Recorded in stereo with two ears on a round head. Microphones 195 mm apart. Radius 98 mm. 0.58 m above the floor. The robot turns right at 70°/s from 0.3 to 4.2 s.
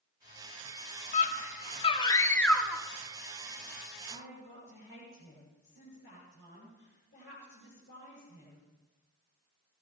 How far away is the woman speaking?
About 8.5 m.